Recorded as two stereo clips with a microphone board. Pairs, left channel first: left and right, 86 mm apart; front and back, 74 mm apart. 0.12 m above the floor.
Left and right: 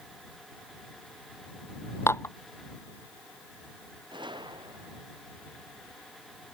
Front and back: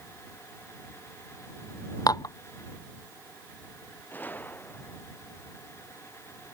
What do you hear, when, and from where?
2.1 s dishes clattering: 30° left
4.1 s a gunshot: 65° right